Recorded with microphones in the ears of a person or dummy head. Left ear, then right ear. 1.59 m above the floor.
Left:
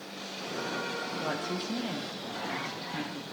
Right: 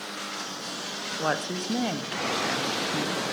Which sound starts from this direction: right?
A woman speaking, at 1.2 s.